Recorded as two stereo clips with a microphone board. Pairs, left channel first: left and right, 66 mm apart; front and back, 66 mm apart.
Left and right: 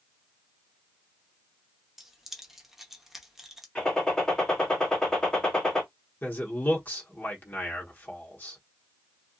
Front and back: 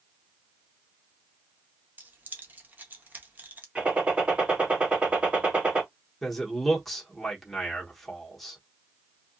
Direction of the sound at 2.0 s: 165° right.